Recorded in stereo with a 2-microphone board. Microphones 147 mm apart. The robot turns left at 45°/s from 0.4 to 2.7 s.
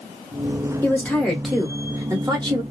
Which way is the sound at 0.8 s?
25° left.